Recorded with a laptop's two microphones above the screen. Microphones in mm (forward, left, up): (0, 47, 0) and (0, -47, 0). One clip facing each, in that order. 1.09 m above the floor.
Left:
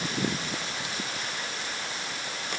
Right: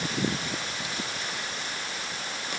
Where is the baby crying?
I don't hear a baby crying.